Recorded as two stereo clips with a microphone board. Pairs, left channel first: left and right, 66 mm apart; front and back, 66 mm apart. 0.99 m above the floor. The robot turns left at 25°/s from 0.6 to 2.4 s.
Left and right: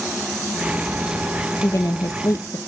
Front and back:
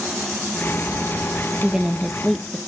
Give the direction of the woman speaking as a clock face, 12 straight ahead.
9 o'clock.